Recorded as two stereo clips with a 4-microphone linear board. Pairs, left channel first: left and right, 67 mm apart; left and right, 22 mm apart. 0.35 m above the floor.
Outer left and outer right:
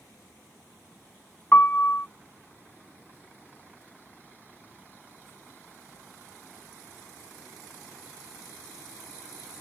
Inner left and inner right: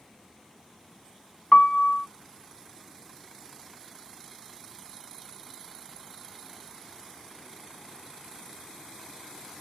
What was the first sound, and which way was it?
A piano, 30° left (ahead or behind).